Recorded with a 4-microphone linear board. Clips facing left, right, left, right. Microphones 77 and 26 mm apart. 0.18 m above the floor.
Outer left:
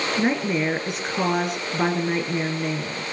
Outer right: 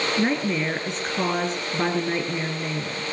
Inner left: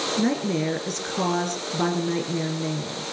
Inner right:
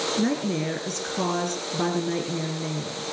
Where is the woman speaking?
5° left (ahead or behind), 2.5 m.